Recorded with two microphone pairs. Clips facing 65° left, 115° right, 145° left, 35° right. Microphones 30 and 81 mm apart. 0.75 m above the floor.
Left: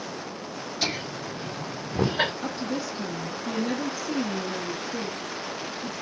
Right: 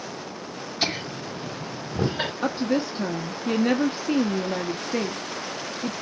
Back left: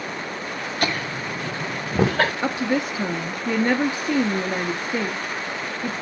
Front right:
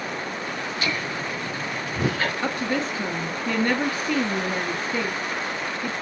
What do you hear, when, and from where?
0.8 s laughter: 175° left, 2.5 m; by 2.3 s 135° left, 3 m
2.4 s a woman speaking: 145° right, 1.3 m